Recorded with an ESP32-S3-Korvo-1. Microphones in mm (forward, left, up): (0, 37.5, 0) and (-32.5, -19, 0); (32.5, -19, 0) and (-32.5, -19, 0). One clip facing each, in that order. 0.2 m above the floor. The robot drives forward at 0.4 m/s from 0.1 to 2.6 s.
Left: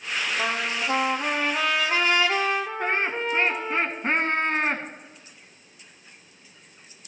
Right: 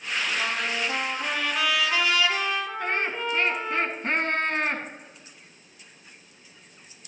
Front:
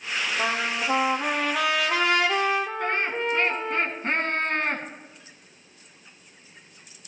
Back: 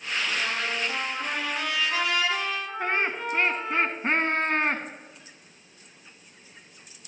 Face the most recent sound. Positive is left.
turn(degrees=120)